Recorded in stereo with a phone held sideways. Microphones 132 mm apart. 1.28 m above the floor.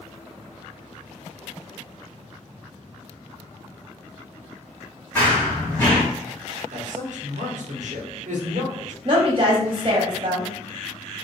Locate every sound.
5.2 s running footsteps: 15° left (ahead or behind), 1.3 m
6.7 s a man speaking: 70° right (ahead or behind), 0.8 m
9.1 s a woman speaking: 45° right (ahead or behind), 0.6 m